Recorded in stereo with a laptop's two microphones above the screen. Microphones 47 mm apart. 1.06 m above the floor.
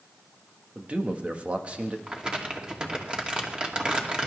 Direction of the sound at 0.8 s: 30° right (ahead or behind).